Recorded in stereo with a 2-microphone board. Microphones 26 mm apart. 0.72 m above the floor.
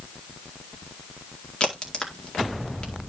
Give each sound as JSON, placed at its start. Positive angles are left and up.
{"t": 1.6, "sound": "a crack", "side_deg": 45, "distance_m": 2.0}